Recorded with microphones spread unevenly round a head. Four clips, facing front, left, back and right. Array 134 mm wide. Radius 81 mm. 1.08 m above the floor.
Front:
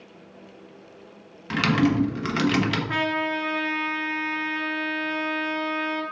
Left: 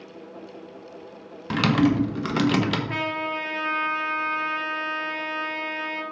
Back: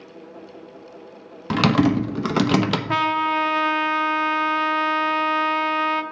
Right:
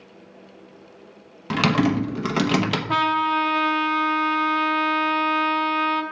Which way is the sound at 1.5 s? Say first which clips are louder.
Even, back 3 dB; 170° right.